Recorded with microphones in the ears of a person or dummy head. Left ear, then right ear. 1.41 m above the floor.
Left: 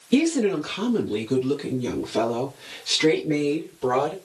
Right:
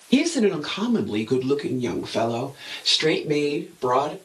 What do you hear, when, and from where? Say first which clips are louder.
0.1 s a woman speaking: right 1 dB; 5° right (ahead or behind), 1.0 m; by 4.1 s 35° right (ahead or behind), 3 m